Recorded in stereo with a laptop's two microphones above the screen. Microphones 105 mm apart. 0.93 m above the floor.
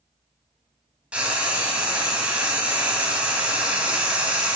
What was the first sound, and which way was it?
Frying, 10° right (ahead or behind).